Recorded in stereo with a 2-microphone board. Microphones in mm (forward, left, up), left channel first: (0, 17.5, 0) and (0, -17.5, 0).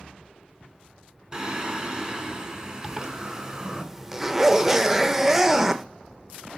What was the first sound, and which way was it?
Singing, 15° right (ahead or behind).